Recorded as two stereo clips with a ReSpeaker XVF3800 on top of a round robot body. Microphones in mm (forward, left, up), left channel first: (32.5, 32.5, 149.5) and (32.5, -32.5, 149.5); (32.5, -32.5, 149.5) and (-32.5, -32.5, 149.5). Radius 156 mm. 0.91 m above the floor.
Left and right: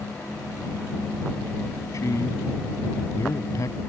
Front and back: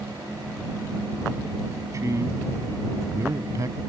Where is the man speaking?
135° left.